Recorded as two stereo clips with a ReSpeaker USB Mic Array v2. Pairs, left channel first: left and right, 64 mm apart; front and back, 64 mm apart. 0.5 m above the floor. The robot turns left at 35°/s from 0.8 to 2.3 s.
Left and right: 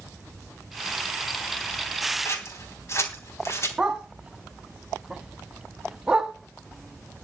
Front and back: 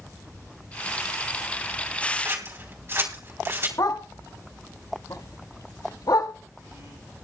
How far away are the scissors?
About 3 m.